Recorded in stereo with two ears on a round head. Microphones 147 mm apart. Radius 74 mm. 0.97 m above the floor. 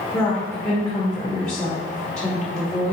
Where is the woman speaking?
15° left (ahead or behind), 1.4 m.